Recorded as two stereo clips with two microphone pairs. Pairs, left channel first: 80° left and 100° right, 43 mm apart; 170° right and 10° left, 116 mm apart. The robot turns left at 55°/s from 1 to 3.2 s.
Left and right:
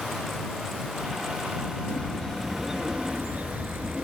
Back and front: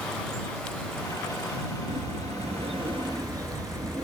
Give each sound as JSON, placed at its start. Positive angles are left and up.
{"t": 1.9, "sound": "a bird", "azimuth_deg": 25}